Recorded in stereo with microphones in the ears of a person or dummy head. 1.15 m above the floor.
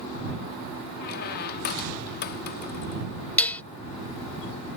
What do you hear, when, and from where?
1.0 s a squeak: 50° left (ahead or behind)
3.4 s dishes clattering: 10° left (ahead or behind)